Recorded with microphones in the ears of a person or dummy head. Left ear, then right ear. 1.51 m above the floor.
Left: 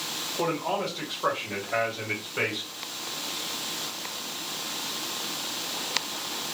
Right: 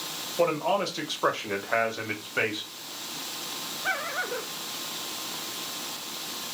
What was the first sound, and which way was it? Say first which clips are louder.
A man speaking: right 4 dB; 70° right (ahead or behind).